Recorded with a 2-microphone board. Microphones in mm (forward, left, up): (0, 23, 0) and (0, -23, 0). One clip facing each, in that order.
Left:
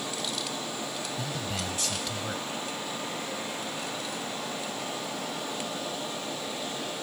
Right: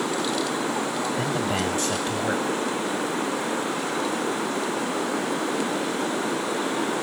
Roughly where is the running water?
Right.